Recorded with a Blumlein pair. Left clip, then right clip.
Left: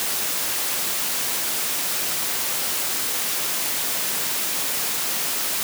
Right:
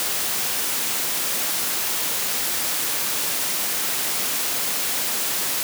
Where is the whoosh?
No whoosh in this recording.